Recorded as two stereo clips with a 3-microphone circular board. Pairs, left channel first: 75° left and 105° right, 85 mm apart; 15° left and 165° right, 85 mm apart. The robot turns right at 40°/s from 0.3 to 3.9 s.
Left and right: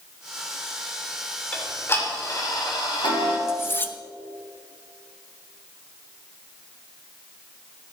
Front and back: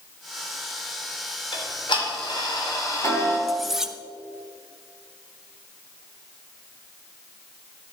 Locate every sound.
1.5 s ticking: straight ahead, 3 m; by 3.4 s 75° left, 3 m
3.5 s cutlery clinking: 105° left, 0.6 m; by 4.0 s 120° left, 0.6 m